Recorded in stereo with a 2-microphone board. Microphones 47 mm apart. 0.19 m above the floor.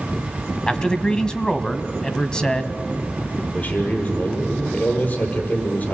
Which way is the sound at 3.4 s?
40° left (ahead or behind).